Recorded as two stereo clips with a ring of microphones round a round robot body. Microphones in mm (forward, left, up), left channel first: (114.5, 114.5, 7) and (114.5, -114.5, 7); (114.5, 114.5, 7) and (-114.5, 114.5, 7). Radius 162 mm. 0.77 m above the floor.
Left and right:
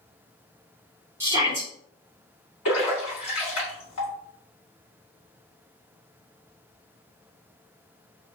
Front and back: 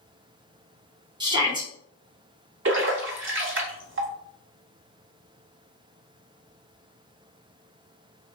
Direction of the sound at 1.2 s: 150° right.